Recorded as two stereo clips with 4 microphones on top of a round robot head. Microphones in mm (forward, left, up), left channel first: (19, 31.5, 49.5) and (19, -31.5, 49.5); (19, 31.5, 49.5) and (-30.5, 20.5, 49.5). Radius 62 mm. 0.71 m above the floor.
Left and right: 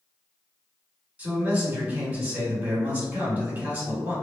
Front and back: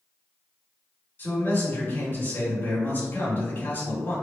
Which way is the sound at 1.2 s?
30° right.